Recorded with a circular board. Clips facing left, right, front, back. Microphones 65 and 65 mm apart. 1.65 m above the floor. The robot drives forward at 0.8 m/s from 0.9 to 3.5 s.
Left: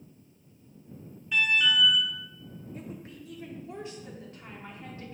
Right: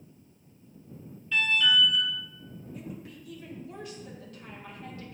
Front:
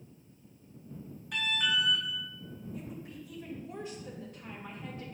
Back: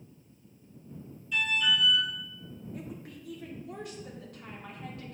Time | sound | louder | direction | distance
1.3 | an alarm | even, back 3 dB | 20° left | 1.9 m
2.7 | a woman speaking | even, back 1 dB | 140° left | 1.3 m